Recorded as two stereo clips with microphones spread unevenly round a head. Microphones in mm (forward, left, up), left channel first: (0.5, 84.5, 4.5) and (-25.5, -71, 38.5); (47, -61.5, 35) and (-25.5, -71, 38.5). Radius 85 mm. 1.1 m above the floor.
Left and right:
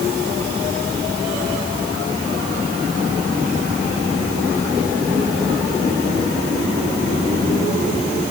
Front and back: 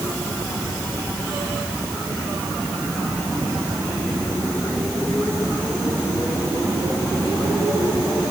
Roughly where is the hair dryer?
I don't hear a hair dryer.